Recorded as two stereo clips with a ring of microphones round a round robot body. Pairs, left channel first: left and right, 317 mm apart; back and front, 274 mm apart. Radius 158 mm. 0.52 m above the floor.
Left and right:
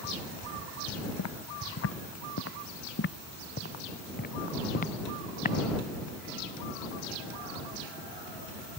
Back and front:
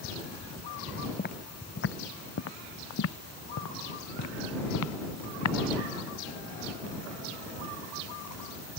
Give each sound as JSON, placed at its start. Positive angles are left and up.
{"t": 1.2, "sound": "footsteps", "azimuth_deg": 125}